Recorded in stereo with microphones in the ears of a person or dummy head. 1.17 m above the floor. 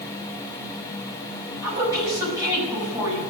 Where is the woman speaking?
20° right (ahead or behind), 6 m.